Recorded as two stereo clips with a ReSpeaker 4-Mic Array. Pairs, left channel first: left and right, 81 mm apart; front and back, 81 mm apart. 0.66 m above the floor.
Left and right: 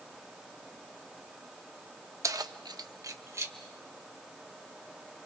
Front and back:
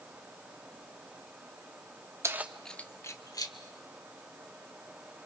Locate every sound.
2.2 s keys jangling: 130° right, 0.8 m; by 3.5 s 35° right, 1.4 m